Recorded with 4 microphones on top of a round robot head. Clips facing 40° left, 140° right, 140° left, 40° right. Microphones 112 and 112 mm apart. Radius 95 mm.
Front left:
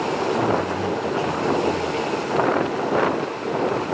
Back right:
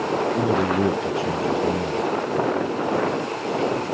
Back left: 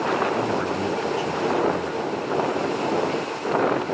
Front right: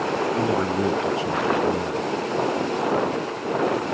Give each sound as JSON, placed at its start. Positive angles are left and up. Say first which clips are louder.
{"t": 0.4, "sound": "a man speaking", "louder": "back right 1 dB, front right 2 dB", "azimuth_deg": -110}